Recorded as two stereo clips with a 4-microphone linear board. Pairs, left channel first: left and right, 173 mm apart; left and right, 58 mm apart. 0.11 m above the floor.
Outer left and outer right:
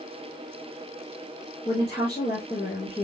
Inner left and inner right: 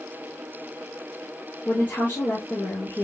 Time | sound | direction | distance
1.6 | a woman speaking | 35° left (ahead or behind) | 7.5 m